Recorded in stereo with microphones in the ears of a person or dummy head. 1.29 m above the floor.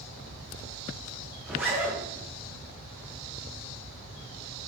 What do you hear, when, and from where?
1.4 s a zipper: centre (ahead or behind), 0.6 m